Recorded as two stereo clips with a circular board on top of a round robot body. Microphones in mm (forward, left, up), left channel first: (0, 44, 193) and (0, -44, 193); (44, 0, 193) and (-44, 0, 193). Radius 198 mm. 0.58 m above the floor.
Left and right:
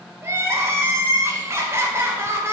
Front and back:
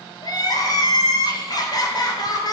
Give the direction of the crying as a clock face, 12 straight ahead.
1 o'clock.